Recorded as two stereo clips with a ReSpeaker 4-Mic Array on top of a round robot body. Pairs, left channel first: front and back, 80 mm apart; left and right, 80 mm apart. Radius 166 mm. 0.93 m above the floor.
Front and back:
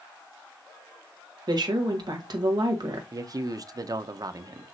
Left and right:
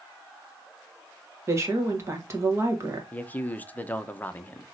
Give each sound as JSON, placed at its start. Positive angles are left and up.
{"t": 1.5, "sound": "a woman speaking", "azimuth_deg": -145, "distance_m": 1.3}
{"t": 3.1, "sound": "a man speaking", "azimuth_deg": 155, "distance_m": 0.8}